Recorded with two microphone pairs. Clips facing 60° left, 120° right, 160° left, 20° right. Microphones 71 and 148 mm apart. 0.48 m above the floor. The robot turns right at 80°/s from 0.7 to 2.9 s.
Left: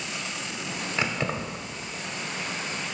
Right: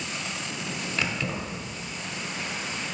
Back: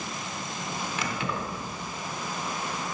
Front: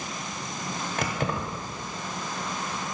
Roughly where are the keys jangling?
Ahead.